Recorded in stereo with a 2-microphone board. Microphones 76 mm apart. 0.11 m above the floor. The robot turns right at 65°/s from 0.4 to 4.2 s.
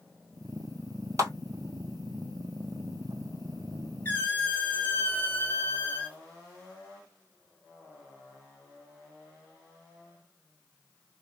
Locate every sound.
1.2 s a clap: 45° right (ahead or behind), 1.6 m; by 1.3 s 40° right (ahead or behind), 1.6 m
4.0 s a squeak: 30° left (ahead or behind), 0.9 m; by 6.2 s 20° left (ahead or behind), 0.9 m